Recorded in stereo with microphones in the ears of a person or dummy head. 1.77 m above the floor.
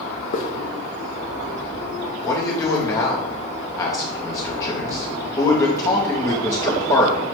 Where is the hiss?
45° left (ahead or behind), 0.5 m.